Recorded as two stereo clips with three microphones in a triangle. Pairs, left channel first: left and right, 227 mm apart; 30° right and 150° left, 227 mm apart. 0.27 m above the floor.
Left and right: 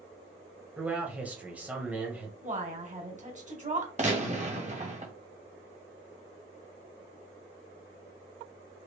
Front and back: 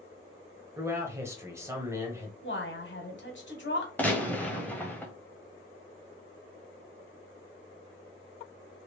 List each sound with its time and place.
0.8 s a man speaking: 160° right, 1.2 m
2.4 s a woman speaking: 40° right, 1.4 m
4.0 s a gunshot: 105° right, 1.1 m